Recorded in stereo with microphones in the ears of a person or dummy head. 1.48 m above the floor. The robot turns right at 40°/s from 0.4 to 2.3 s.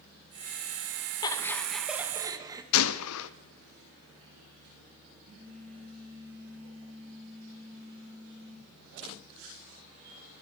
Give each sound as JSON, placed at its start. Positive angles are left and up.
{"t": 1.2, "sound": "laughter", "azimuth_deg": 160, "distance_m": 1.6}
{"t": 2.7, "sound": "a gunshot", "side_deg": 75, "distance_m": 0.8}
{"t": 5.2, "sound": "a phone buzzing", "side_deg": -25, "distance_m": 6.0}